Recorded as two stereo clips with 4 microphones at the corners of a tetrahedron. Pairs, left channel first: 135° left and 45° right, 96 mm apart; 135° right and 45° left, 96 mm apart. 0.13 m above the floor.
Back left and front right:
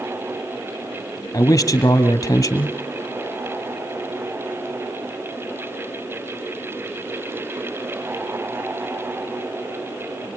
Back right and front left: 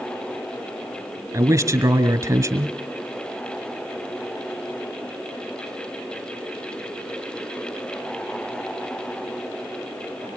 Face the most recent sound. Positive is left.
turn(degrees=90)